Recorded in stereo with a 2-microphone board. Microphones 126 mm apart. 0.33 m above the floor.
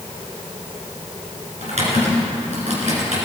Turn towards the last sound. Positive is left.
turn(degrees=-65)  # may be behind; listen again after turning